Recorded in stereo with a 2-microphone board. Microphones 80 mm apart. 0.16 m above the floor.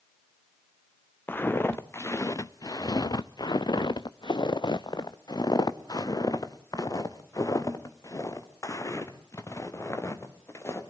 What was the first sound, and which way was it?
Footsteps, 30° left (ahead or behind).